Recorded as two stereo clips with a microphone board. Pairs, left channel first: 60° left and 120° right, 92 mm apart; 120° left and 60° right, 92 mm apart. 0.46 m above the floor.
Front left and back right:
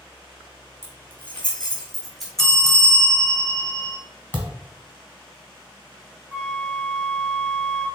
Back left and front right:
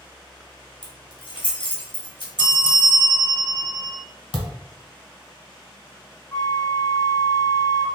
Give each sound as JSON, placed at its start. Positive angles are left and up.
{"t": 0.8, "sound": "keys jangling", "azimuth_deg": 125, "distance_m": 1.5}
{"t": 2.4, "sound": "a bell", "azimuth_deg": -25, "distance_m": 0.8}
{"t": 4.3, "sound": "a thud", "azimuth_deg": 130, "distance_m": 1.1}
{"t": 6.3, "sound": "a flute", "azimuth_deg": 175, "distance_m": 1.8}